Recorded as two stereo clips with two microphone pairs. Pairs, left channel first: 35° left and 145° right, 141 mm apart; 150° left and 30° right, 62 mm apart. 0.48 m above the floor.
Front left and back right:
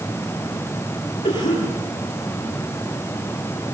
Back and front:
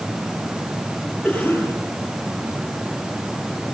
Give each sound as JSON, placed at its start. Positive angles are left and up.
{"t": 1.2, "sound": "a cough", "azimuth_deg": 70, "distance_m": 10.0}